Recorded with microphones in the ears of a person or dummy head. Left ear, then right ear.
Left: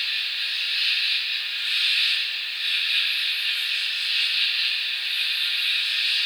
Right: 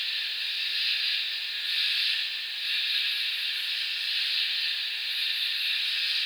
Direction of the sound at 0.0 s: 65° left (ahead or behind).